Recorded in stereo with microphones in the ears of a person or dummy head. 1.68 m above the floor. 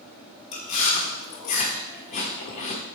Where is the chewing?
35° left (ahead or behind), 1.4 m.